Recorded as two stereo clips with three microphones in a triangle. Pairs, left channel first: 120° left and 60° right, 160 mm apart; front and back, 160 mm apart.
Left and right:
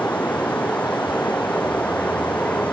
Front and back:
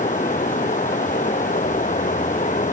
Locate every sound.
0.0 s running water: 40° left